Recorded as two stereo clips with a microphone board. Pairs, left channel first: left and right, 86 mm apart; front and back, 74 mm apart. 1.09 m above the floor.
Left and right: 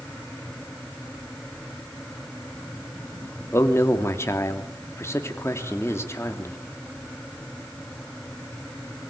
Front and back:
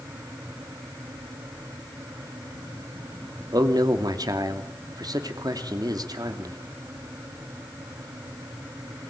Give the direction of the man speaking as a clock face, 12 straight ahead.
7 o'clock.